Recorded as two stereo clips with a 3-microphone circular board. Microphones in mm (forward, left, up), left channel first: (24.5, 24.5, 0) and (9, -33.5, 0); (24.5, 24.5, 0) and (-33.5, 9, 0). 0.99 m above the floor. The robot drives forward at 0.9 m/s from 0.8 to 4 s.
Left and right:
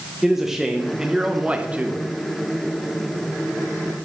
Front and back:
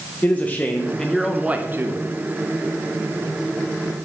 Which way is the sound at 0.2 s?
25° right.